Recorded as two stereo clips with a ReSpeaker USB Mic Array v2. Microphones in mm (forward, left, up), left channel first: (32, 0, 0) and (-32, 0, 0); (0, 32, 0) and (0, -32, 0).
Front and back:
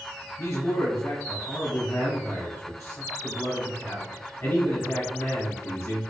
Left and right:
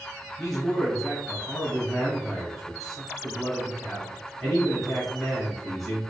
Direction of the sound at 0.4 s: 5° left.